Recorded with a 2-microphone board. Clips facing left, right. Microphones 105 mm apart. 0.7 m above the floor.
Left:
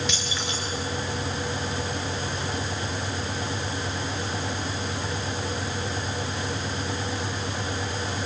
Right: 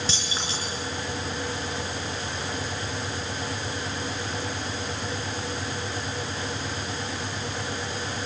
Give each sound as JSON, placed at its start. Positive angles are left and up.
{"t": 0.1, "sound": "keys jangling", "side_deg": -35, "distance_m": 6.5}